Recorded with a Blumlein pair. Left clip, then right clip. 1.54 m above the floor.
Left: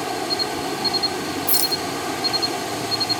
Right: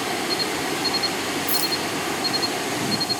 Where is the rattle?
20° left.